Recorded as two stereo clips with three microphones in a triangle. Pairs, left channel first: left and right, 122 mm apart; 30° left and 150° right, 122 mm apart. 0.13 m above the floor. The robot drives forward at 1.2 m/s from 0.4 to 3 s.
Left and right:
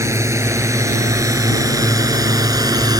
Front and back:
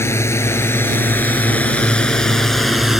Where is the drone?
30° right; by 3.0 s 65° right.